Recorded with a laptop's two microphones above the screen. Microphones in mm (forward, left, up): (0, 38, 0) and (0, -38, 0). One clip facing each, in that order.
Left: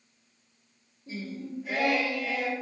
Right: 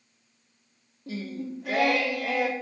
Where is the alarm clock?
No alarm clock in this recording.